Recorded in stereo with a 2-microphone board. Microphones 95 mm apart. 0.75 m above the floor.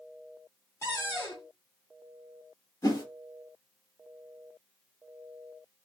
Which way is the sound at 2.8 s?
30° left (ahead or behind).